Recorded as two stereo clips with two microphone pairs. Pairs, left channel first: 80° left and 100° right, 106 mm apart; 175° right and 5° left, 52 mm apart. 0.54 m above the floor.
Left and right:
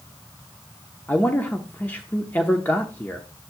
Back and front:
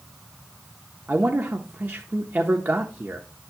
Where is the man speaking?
20° left, 0.8 m.